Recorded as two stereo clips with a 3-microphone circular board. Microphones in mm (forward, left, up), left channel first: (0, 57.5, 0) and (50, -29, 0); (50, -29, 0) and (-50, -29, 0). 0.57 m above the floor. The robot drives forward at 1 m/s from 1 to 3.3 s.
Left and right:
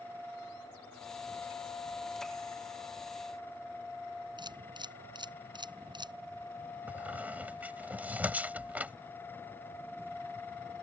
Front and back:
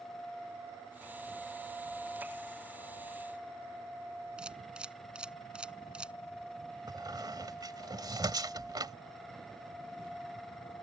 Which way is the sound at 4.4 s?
100° right.